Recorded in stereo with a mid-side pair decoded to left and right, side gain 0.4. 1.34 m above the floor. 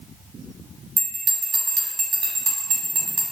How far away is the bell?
About 0.9 m.